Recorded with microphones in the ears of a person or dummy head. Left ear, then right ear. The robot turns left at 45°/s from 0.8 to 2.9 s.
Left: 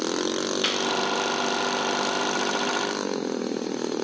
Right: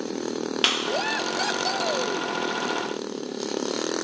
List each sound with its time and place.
0.6 s a clap: 35° right (ahead or behind); by 1.0 s 25° right (ahead or behind)